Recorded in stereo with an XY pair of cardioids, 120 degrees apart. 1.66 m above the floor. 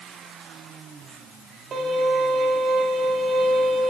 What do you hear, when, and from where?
1.7 s a violin: 50° right, 2.5 m